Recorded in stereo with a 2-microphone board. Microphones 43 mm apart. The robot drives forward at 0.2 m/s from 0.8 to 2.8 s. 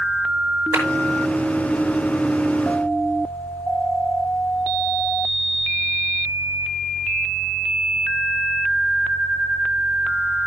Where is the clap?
70° right (ahead or behind), 6 m.